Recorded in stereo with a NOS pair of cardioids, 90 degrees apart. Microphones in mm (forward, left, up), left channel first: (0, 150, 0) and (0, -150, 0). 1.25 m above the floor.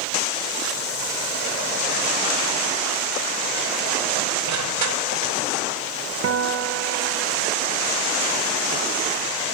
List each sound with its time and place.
4.5 s crushing: 60° right, 5.5 m
6.2 s a guitar: 45° right, 3 m